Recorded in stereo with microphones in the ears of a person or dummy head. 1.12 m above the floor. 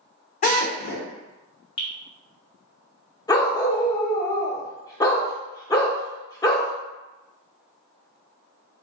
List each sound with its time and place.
0.4 s a drill: 45° left (ahead or behind), 1.4 m
1.8 s dripping: 35° left (ahead or behind), 1.8 m
3.3 s a dog barking: 20° left (ahead or behind), 1.0 m